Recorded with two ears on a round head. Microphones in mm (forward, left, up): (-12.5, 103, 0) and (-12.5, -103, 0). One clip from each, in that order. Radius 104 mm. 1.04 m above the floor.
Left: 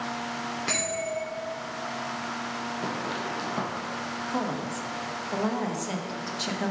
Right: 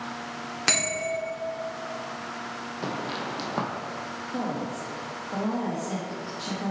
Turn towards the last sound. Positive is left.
turn(degrees=65)  # may be behind; listen again after turning